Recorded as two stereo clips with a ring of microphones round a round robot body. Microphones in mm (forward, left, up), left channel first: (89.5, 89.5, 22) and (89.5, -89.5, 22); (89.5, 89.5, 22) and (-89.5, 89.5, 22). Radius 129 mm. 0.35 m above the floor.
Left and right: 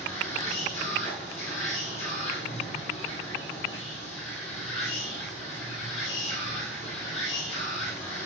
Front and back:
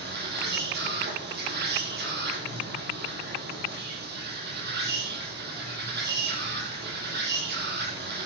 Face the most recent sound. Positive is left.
turn(degrees=155)